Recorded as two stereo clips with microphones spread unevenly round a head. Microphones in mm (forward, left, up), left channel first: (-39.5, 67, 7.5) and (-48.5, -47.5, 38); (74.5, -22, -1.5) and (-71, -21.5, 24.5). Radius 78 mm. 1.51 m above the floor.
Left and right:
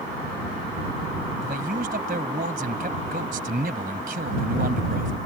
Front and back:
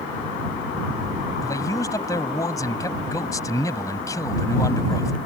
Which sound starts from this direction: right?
A man speaking, at 1.4 s.